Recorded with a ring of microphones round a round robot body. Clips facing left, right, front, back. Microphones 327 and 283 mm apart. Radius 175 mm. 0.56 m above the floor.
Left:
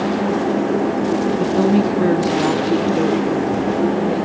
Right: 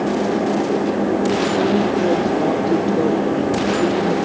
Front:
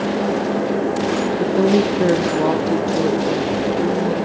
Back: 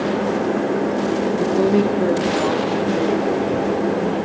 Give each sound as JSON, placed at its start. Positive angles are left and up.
{"t": 1.4, "sound": "a woman speaking", "azimuth_deg": 85, "distance_m": 1.0}